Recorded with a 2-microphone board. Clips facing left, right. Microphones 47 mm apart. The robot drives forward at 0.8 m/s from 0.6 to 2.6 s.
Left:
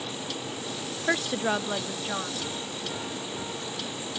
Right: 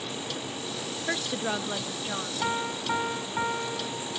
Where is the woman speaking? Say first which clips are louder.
Left 4 dB; 20° left (ahead or behind); by 2.3 s 10° left (ahead or behind).